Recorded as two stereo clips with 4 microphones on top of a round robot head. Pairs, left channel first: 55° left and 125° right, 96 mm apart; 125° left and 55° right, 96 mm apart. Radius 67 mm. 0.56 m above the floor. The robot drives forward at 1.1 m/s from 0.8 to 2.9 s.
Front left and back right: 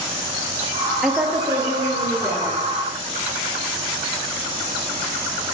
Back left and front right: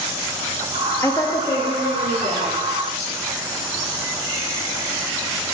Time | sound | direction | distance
1.0 | a woman speaking | 160° left | 0.6 m